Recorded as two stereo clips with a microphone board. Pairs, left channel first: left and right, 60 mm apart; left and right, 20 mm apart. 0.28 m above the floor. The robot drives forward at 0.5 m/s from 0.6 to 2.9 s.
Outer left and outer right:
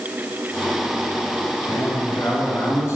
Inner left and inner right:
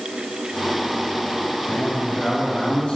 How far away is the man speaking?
About 3 m.